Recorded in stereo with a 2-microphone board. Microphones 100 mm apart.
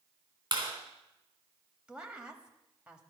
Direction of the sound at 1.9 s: 10° right (ahead or behind).